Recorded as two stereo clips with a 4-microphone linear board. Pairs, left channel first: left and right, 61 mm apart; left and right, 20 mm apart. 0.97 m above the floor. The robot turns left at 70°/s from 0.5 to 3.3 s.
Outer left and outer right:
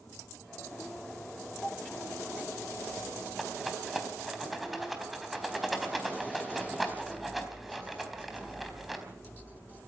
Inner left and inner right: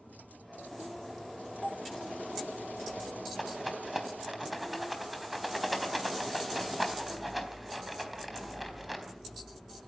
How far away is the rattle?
About 3.5 m.